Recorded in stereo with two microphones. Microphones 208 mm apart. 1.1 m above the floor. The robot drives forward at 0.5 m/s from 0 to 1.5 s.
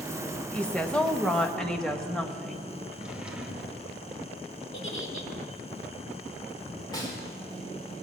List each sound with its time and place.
0.5 s a woman speaking: 5° left (ahead or behind), 0.7 m
2.9 s a drawer: 5° right (ahead or behind), 1.4 m
4.7 s a giggle: 65° left (ahead or behind), 1.6 m
6.9 s a snare drum: 20° left (ahead or behind), 2.5 m